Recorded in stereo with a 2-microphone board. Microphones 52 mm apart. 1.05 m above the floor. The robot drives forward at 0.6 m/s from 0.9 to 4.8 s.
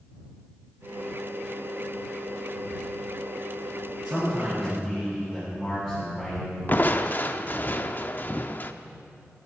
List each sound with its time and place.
4.0 s a man speaking: 15° right (ahead or behind), 5 m
6.7 s crushing: 40° left (ahead or behind), 0.7 m